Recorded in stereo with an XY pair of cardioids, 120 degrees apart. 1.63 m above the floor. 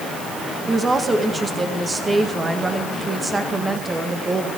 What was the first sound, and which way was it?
A woman speaking, 20° right.